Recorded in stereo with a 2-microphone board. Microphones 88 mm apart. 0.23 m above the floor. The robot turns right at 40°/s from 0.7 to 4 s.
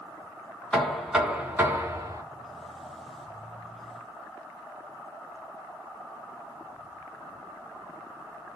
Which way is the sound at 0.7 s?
175° left.